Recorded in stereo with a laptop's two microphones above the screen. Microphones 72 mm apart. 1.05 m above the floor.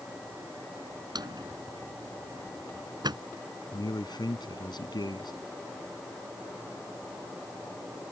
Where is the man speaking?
75° left (ahead or behind).